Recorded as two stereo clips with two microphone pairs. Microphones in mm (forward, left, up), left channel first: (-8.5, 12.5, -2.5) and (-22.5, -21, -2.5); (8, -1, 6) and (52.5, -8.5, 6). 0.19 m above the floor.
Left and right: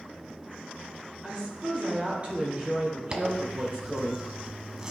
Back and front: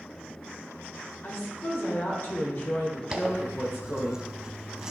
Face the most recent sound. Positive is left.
turn(degrees=-60)